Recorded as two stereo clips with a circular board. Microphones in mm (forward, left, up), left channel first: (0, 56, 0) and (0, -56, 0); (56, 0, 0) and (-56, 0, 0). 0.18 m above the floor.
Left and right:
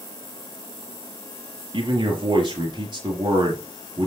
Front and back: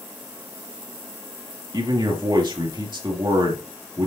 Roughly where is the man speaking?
Behind right.